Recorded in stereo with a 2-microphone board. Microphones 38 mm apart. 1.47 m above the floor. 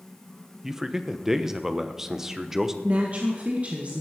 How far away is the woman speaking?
About 2.0 m.